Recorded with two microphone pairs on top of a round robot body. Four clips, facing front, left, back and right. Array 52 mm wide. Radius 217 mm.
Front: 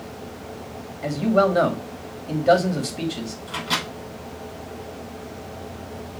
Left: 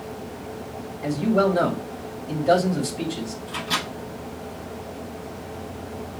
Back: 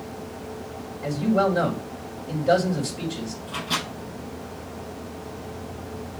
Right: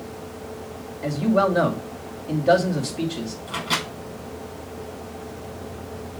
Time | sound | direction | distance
1.0 | a man speaking | 25° right | 2.5 m
3.5 | a microwave | 60° right | 5.5 m